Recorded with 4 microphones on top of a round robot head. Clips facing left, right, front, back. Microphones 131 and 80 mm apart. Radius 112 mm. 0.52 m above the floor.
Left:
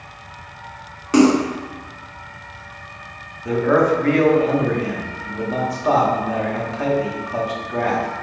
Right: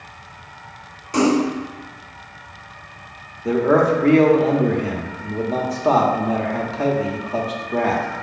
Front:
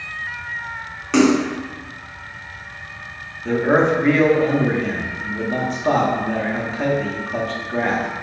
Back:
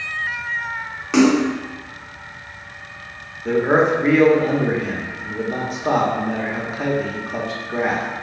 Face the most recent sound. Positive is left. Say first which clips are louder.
# even, even
turn(degrees=-105)